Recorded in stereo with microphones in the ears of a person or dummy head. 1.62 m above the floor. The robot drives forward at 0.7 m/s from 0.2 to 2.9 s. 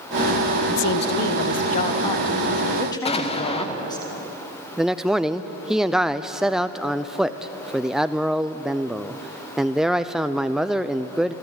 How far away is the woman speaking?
About 0.8 m.